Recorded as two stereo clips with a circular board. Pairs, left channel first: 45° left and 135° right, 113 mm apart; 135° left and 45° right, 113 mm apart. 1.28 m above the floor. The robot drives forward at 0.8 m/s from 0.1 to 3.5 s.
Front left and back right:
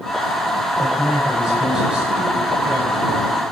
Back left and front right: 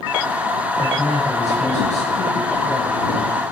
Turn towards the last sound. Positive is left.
turn(degrees=145)